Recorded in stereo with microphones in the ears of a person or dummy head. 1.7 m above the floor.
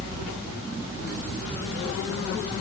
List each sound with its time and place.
Only background noise.